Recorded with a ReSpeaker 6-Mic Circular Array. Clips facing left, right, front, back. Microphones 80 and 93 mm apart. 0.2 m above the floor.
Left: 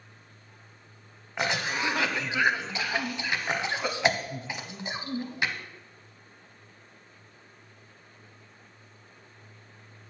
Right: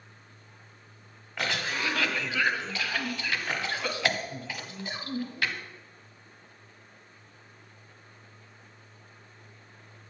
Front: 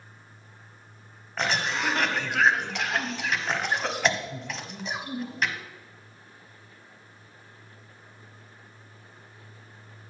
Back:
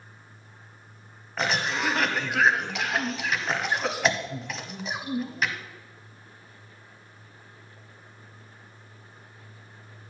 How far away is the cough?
About 1.0 m.